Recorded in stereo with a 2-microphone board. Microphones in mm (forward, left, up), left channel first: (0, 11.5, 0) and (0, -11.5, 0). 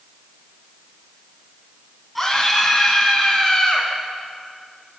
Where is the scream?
5° left (ahead or behind), 3.5 m; by 3.9 s 15° left (ahead or behind), 4.5 m.